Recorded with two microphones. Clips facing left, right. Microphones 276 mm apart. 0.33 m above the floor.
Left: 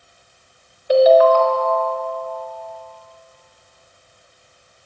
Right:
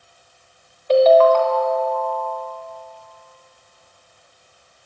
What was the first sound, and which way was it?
A ringtone, 10° left (ahead or behind).